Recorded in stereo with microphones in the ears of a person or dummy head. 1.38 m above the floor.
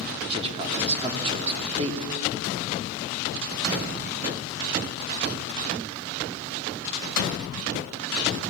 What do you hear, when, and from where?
0.3 s a man speaking: 35° right (ahead or behind), 2.5 m